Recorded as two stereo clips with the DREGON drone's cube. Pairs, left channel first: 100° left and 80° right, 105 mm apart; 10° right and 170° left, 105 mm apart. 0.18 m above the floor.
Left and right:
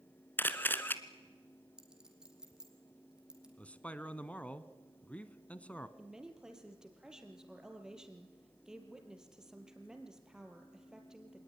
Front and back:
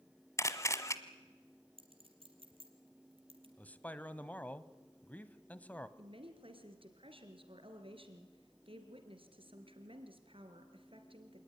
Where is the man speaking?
45° left, 1.0 m.